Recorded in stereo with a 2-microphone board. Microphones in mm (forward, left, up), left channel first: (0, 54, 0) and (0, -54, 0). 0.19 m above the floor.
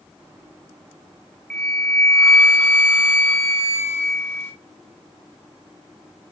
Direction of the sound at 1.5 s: 15° left (ahead or behind).